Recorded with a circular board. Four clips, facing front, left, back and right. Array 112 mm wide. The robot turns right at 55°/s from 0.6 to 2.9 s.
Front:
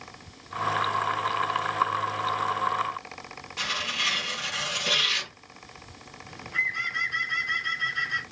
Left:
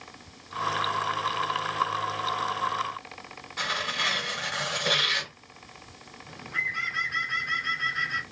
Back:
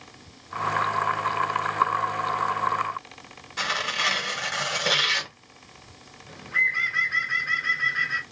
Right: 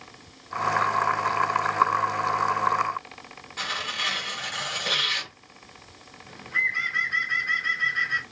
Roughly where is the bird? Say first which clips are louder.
Right 4 dB, back 4 dB; behind.